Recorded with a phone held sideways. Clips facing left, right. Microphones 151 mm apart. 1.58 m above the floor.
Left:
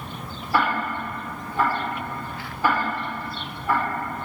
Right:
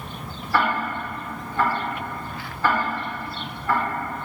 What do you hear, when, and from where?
0.5 s ticking: 15° left (ahead or behind), 4.5 m